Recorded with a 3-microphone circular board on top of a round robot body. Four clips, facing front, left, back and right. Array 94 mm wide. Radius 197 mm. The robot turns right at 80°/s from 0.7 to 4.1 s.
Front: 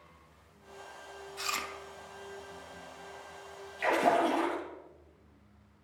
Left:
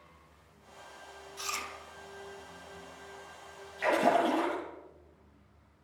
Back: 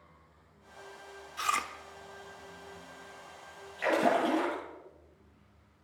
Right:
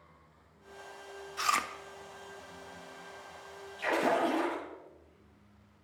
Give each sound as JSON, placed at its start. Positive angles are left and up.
{"t": 1.4, "sound": "chewing", "azimuth_deg": -125, "distance_m": 1.2}
{"t": 3.8, "sound": "a splash", "azimuth_deg": 140, "distance_m": 9.5}